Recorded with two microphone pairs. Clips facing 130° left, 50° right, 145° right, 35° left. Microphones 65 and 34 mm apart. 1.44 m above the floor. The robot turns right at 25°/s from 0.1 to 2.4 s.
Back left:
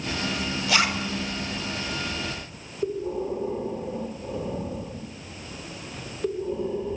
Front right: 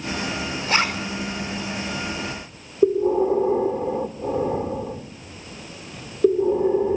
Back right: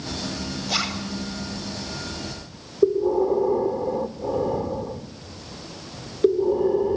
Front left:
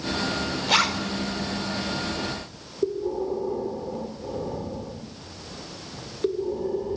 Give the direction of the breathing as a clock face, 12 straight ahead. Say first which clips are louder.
Front right 10 dB, back right 7 dB; 3 o'clock.